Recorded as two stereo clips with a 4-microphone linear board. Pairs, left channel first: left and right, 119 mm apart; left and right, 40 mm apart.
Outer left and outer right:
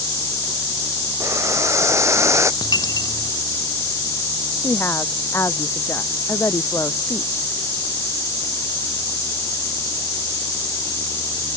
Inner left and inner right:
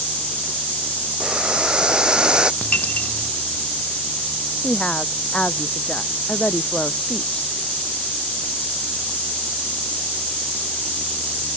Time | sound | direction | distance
1.2 | boiling | 20° right (ahead or behind) | ?
2.6 | a dropped coin | 35° left (ahead or behind) | ?
4.6 | a woman speaking | 20° left (ahead or behind) | ?